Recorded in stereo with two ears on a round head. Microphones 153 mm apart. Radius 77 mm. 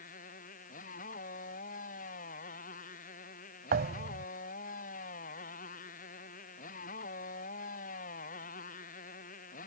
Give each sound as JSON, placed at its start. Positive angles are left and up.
{"t": 0.0, "sound": "a motorcycle", "side_deg": 50}
{"t": 3.7, "sound": "a thud", "side_deg": -60}